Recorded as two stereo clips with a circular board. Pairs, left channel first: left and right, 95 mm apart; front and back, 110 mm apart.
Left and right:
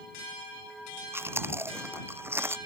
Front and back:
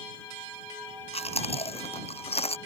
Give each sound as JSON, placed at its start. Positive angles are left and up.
{"t": 1.1, "sound": "chewing", "azimuth_deg": -25}